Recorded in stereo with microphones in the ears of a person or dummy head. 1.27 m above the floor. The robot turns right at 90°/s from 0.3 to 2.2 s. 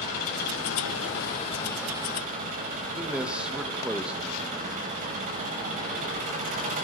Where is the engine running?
50° left, 6.5 m; by 6.8 s 140° right, 6.5 m.